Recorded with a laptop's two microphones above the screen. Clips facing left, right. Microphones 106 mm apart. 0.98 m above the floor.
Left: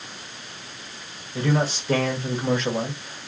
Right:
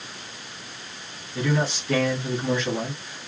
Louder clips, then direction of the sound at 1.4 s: Left 1 dB; 40° left (ahead or behind).